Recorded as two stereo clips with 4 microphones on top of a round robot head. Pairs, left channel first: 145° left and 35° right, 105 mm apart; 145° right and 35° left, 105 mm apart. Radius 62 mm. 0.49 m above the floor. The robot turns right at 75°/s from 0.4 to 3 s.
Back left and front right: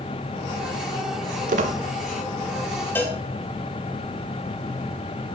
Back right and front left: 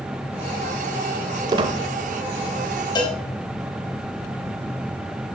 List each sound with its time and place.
1.5 s a squeak: 20° right, 0.6 m; by 1.8 s 5° left, 0.6 m
3.0 s a cowbell: 155° right, 1.2 m; by 3.2 s 150° right, 1.2 m